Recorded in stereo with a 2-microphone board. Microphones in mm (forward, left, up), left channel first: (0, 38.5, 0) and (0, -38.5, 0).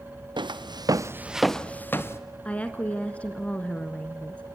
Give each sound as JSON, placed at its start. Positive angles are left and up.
{"t": 0.4, "sound": "footsteps", "side_deg": -85, "distance_m": 1.4}
{"t": 2.5, "sound": "a woman speaking", "side_deg": 15, "distance_m": 1.4}